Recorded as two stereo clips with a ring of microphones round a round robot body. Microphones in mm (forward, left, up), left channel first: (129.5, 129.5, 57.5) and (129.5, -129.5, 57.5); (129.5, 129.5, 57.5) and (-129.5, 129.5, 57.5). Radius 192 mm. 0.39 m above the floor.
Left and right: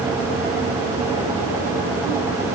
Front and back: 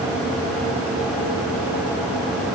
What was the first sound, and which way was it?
Only background noise.